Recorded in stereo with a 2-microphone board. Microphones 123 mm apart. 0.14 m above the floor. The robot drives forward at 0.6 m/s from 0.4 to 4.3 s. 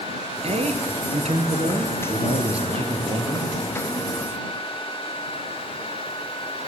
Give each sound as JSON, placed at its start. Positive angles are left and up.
{"t": 0.4, "sound": "a man speaking", "side_deg": -60, "distance_m": 3.0}